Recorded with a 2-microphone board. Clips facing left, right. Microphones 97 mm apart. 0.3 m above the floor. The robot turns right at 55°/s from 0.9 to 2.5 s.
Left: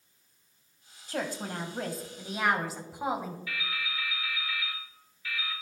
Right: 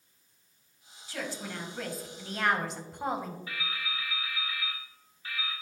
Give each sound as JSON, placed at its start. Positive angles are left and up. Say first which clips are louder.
{"t": 1.1, "sound": "a woman speaking", "louder": "left 4 dB", "azimuth_deg": 95, "distance_m": 1.3}
{"t": 3.5, "sound": "dripping", "louder": "left 1 dB", "side_deg": -35, "distance_m": 3.5}